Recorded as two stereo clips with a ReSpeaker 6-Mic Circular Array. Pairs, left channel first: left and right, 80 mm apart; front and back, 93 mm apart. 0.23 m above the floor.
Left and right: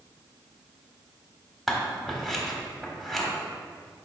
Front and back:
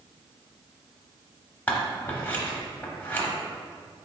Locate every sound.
1.7 s scissors: straight ahead, 0.8 m